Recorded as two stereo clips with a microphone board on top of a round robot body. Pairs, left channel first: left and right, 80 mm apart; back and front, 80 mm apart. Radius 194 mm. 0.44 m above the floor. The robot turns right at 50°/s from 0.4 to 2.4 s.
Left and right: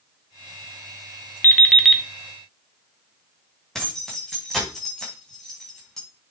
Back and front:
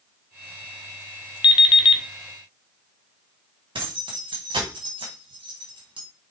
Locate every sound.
1.4 s an alarm clock: 155° left, 1.1 m; by 2.0 s 175° right, 1.1 m
3.8 s keys jangling: 5° left, 3.5 m